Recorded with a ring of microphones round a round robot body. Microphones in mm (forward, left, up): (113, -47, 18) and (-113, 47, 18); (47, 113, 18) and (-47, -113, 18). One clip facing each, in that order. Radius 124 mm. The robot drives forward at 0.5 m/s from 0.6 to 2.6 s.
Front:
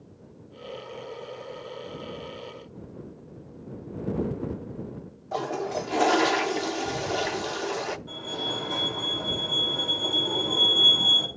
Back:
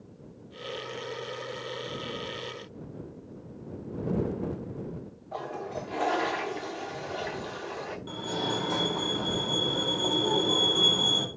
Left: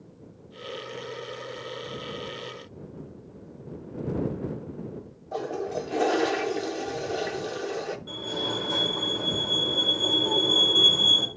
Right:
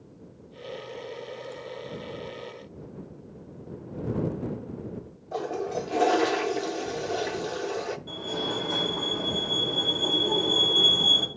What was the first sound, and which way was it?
A toilet flushing, 25° right.